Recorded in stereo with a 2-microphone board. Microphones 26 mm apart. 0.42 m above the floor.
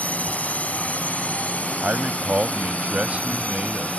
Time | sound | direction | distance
0.0 | a drone | 60° left (ahead or behind) | ?
1.8 | a man speaking | 55° right (ahead or behind) | ?